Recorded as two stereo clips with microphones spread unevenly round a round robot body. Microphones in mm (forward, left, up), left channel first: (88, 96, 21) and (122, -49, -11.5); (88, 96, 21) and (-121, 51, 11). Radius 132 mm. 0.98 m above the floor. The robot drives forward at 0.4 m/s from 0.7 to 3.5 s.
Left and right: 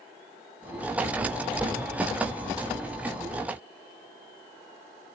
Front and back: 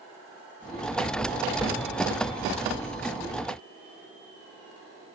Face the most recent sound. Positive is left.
No sound to turn to.